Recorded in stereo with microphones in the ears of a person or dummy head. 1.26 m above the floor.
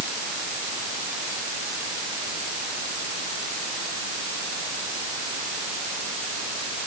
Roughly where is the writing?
I don't hear writing.